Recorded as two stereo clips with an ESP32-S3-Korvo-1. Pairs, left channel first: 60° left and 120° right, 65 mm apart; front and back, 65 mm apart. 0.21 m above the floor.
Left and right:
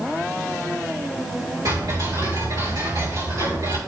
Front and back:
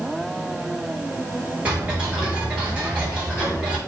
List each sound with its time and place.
1.6 s ticking: 110° right, 4 m